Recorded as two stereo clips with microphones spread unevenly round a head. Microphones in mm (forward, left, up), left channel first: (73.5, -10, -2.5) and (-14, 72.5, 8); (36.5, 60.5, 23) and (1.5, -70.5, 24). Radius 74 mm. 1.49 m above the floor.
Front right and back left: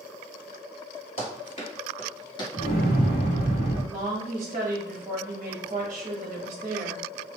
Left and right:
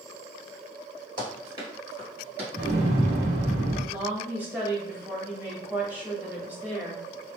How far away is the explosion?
About 1.2 m.